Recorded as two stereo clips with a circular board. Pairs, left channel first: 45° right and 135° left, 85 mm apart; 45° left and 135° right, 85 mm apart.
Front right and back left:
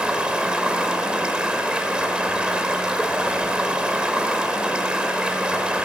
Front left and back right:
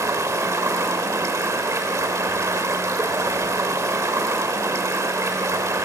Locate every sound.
0.0 s running water: 155° right, 1.1 m